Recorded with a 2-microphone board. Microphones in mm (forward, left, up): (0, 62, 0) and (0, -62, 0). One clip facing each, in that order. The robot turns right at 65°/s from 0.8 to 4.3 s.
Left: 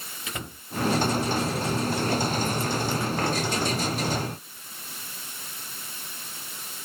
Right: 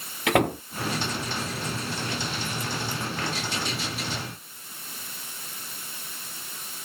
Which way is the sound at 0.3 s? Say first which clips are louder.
Right 17 dB; 80° right.